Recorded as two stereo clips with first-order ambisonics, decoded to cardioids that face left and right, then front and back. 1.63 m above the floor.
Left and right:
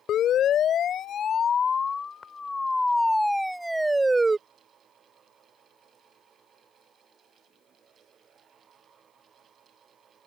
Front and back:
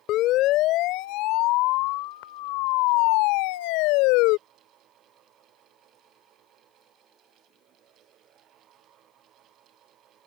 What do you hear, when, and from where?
0.1 s a siren: 40° left; by 4.4 s 10° right